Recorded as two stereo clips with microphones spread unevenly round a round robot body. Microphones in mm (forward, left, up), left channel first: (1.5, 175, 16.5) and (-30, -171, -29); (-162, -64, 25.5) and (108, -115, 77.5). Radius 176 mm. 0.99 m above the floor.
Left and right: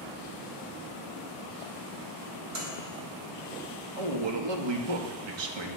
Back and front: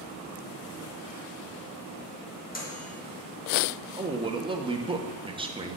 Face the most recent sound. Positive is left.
turn(degrees=-85)